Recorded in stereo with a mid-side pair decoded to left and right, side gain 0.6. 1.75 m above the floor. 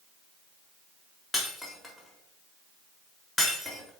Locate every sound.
1.3 s breaking glass: 15° left, 3.5 m